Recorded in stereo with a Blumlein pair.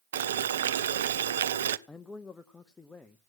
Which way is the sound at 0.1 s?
65° right.